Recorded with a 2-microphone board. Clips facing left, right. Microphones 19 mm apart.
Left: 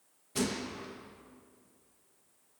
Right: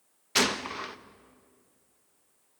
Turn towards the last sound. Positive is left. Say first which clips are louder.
# right 8 dB
turn(degrees=-60)  # may be behind; listen again after turning